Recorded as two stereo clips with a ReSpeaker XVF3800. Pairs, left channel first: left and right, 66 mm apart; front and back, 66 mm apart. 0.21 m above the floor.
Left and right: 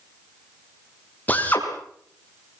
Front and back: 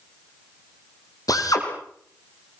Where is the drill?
20° left, 6 m.